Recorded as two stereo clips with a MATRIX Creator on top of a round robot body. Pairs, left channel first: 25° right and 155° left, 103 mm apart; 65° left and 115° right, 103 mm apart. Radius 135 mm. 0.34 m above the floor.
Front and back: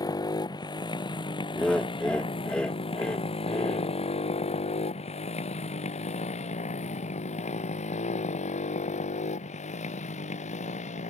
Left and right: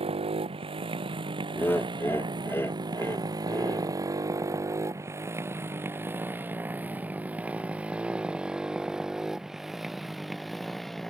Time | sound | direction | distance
0.0 | a motorcycle | 80° right | ?
1.6 | laughter | 45° left | ?